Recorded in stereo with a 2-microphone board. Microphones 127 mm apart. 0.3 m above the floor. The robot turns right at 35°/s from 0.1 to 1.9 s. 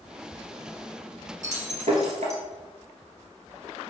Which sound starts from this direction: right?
Breaking glass, at 1.4 s.